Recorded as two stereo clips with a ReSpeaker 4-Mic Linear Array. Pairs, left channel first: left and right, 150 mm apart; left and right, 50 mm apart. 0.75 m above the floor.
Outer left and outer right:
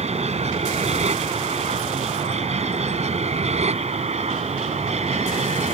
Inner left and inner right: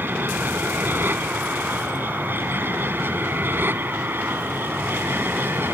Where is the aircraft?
45° right (ahead or behind).